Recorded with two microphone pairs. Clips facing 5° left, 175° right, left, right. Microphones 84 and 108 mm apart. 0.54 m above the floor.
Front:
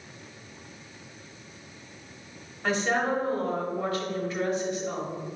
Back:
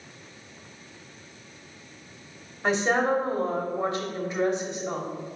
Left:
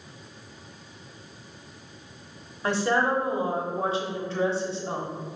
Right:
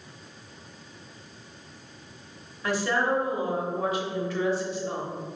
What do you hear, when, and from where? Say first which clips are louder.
2.6 s a woman speaking: back 3 dB, left 2 dB; 125° left, 1.0 m